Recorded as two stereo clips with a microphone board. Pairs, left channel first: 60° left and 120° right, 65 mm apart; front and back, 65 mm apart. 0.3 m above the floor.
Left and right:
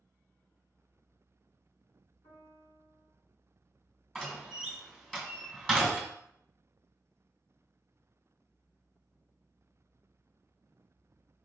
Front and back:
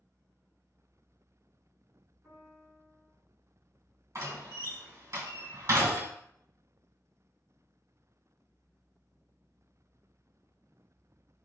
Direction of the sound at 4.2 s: 140° left.